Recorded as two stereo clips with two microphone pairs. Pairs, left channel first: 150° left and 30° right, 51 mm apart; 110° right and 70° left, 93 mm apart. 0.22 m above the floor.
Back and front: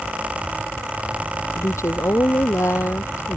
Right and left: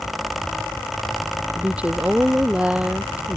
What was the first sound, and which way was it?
A woman speaking, 150° left.